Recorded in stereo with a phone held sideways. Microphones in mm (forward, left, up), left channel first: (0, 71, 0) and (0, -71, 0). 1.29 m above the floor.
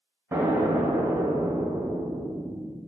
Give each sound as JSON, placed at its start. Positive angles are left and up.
{"t": 0.3, "sound": "an explosion", "side_deg": -20, "distance_m": 0.6}